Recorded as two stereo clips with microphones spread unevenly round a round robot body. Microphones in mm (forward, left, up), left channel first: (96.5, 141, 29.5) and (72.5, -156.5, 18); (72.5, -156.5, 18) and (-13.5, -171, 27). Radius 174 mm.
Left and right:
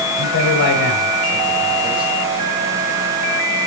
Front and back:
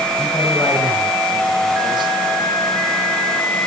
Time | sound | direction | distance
0.2 | a man speaking | 80° left | 2.5 m